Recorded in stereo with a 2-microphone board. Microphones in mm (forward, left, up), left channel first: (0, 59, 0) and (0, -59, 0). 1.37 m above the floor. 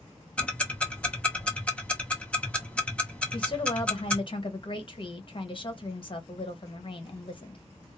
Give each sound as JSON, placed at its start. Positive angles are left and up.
{"t": 0.4, "sound": "ticking", "side_deg": 10, "distance_m": 0.8}
{"t": 3.3, "sound": "a woman speaking", "side_deg": 45, "distance_m": 0.9}